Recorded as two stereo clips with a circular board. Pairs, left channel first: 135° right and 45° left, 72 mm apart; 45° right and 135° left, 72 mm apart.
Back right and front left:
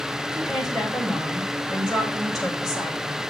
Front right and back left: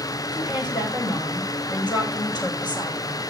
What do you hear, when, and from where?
0.3 s a woman speaking: 40° right, 6.5 m